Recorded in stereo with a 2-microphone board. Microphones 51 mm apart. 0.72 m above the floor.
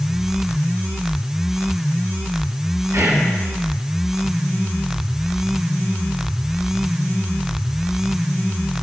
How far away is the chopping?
I don't hear chopping.